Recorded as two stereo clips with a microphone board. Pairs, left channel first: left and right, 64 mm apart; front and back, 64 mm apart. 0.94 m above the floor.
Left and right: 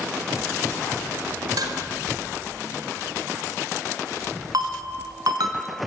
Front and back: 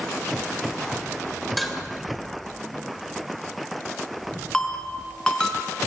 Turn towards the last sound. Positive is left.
turn(degrees=-80)